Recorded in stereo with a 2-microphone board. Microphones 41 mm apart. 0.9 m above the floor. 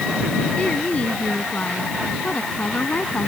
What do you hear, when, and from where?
0.6 s a woman speaking: 35° left (ahead or behind)